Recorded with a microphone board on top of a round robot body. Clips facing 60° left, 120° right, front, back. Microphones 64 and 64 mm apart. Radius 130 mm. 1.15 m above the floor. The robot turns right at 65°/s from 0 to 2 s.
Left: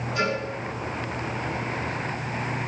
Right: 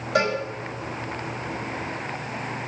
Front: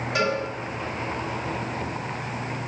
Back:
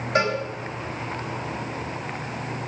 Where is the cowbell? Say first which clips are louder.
Right 4 dB, back 2 dB; 130° right, 8.5 m; by 0.4 s 115° right, 8.5 m.